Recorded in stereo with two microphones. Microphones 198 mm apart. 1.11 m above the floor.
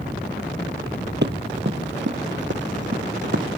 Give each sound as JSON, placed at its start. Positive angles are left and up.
{"t": 1.2, "sound": "running footsteps", "side_deg": -65}